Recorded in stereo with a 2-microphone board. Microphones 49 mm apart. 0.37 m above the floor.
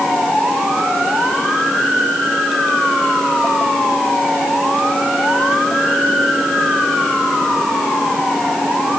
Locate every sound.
Only background noise.